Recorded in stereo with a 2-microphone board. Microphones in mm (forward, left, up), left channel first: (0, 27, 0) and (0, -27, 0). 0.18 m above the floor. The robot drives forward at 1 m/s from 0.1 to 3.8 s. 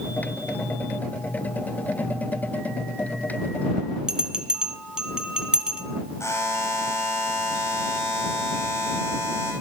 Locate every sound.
4.1 s a bell: 15° right (ahead or behind), 1.5 m
6.2 s a buzzer: 60° left (ahead or behind), 7 m